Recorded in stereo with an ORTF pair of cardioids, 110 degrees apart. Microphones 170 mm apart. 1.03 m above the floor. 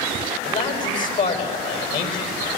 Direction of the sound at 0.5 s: 55° left.